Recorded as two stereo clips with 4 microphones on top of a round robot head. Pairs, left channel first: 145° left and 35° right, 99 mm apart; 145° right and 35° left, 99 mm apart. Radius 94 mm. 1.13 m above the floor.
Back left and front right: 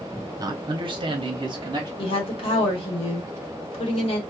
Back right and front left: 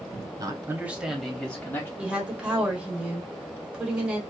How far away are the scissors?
I don't hear scissors.